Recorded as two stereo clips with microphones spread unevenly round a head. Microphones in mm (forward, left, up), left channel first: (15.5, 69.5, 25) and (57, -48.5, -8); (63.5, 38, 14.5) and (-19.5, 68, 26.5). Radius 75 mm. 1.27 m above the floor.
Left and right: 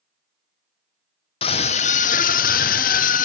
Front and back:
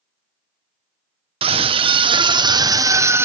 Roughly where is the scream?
Behind.